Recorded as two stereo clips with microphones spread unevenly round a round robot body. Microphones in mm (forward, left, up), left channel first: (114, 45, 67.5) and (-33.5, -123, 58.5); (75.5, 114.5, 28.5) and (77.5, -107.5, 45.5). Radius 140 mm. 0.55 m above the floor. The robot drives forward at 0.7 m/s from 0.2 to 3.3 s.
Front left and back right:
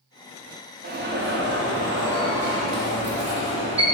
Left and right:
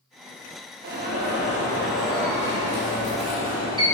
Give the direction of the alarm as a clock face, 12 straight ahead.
4 o'clock.